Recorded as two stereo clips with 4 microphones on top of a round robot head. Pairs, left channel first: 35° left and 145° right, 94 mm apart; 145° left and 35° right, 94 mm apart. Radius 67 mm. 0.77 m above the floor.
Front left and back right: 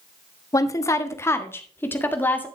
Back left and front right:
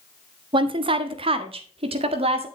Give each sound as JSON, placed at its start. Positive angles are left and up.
{"t": 0.5, "sound": "a woman speaking", "azimuth_deg": -15, "distance_m": 1.3}